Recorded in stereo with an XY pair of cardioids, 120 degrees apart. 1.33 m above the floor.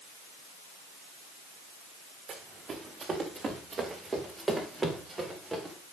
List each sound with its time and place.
2.3 s running footsteps: 35° right, 6 m; by 5.8 s 10° right, 9 m